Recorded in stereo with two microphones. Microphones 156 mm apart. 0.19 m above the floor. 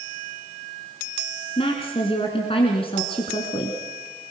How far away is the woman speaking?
About 2.5 m.